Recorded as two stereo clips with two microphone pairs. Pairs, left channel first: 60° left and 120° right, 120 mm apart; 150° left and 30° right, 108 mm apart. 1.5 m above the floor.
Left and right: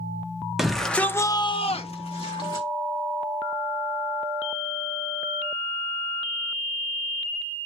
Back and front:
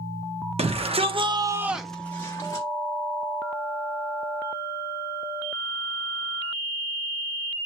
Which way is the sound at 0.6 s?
40° right.